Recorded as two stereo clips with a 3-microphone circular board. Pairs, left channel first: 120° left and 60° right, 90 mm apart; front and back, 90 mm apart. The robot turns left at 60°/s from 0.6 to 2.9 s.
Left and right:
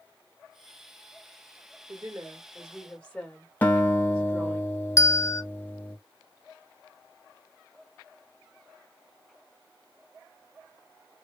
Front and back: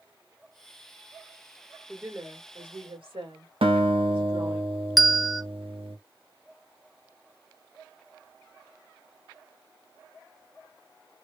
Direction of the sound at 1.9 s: 95° right.